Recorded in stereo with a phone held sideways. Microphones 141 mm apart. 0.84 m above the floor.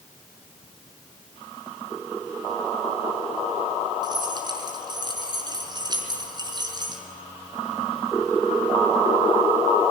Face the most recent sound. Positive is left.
turn(degrees=-30)  # may be behind; listen again after turning